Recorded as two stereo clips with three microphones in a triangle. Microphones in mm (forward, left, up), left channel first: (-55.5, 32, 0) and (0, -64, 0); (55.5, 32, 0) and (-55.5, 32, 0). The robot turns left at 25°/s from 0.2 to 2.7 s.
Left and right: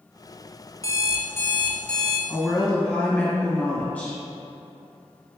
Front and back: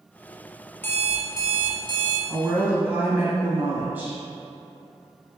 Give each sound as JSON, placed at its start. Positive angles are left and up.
{"t": 0.8, "sound": "an alarm clock", "azimuth_deg": 70, "distance_m": 0.7}
{"t": 2.3, "sound": "a woman speaking", "azimuth_deg": 165, "distance_m": 1.4}